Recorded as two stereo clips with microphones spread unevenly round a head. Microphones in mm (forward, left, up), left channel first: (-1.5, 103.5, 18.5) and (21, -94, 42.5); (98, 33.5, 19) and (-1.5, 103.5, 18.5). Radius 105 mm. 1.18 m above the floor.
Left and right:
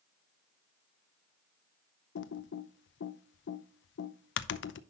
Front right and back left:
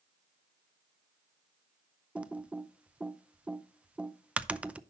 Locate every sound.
2.1 s typing on a keyboard: 65° left, 0.6 m